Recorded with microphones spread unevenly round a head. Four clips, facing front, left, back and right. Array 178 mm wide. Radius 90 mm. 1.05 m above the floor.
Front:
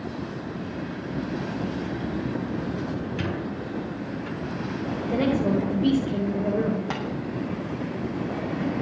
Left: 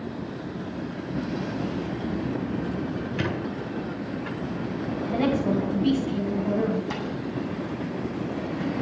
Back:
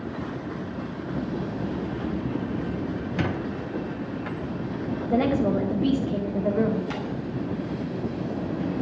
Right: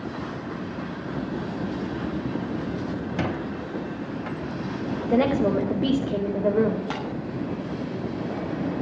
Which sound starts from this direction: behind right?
A squeak, at 3.2 s.